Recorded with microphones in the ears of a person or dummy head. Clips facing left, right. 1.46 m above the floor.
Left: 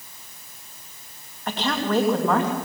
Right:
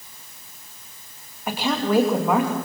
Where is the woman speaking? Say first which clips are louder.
Right 2 dB; 5° right (ahead or behind), 2.5 m.